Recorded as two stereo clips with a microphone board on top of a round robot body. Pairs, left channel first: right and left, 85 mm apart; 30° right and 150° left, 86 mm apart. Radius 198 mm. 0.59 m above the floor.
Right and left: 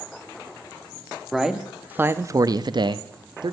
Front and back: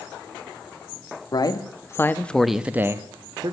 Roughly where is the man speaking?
Ahead.